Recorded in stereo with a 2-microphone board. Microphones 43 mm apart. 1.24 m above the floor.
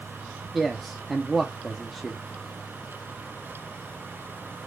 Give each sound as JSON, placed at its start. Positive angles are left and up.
{"t": 0.5, "sound": "a man speaking", "side_deg": -5, "distance_m": 0.5}